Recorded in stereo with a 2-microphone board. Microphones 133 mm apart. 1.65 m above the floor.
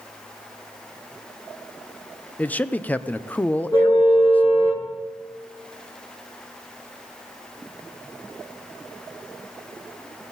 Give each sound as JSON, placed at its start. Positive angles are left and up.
{"t": 2.4, "sound": "a man speaking", "side_deg": 10, "distance_m": 0.6}
{"t": 3.7, "sound": "a car horn", "side_deg": 25, "distance_m": 10.0}